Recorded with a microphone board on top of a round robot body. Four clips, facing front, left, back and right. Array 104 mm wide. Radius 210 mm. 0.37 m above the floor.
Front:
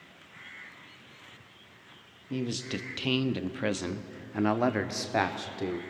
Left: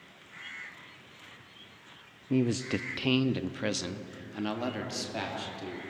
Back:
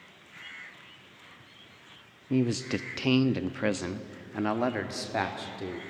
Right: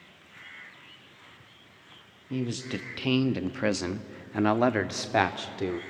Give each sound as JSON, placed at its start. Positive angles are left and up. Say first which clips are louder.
{"t": 2.3, "sound": "a man speaking", "louder": "left 4 dB, back 6 dB", "azimuth_deg": 135, "distance_m": 1.1}